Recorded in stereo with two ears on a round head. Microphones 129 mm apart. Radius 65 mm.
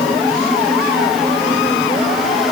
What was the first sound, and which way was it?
Only background noise.